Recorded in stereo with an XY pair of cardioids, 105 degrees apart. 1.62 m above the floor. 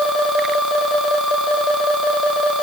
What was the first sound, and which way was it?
Only background noise.